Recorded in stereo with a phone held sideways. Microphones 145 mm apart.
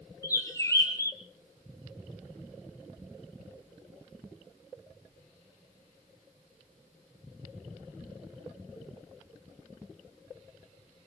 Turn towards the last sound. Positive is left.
turn(degrees=20)  # may be behind; listen again after turning